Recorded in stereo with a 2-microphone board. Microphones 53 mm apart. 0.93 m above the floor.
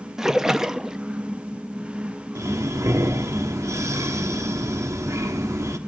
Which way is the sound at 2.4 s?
75° right (ahead or behind).